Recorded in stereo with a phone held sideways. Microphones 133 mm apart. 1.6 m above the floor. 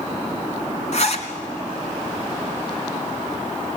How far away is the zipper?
About 2.5 m.